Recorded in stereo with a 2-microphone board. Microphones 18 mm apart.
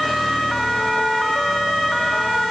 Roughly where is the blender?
I don't hear a blender.